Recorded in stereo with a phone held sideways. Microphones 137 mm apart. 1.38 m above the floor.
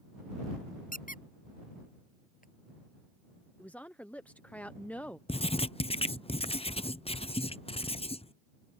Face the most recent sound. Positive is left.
turn(degrees=45)  # may be behind; listen again after turning